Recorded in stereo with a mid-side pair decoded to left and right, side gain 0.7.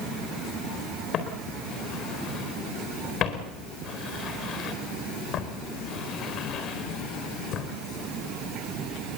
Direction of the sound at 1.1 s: 45° left.